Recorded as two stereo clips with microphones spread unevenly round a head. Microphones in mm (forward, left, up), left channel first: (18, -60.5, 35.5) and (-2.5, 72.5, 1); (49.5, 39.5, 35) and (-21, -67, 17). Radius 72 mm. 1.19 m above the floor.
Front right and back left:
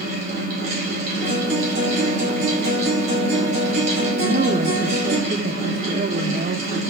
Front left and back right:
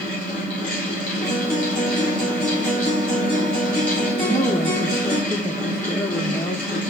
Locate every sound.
0.0 s a fan: 140° left, 7.5 m
1.2 s a guitar: 140° left, 8.5 m
4.2 s a woman speaking: 135° left, 1.0 m